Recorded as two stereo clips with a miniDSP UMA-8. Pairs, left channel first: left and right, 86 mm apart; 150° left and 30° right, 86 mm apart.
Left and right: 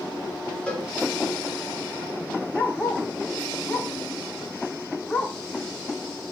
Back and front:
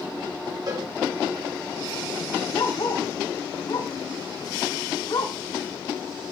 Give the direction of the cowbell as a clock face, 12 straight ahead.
12 o'clock.